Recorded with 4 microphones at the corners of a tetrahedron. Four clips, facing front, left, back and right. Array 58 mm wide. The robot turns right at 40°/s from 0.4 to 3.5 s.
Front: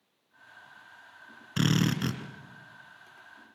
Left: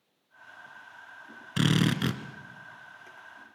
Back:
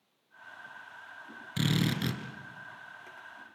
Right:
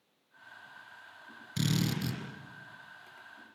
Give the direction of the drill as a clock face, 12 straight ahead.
10 o'clock.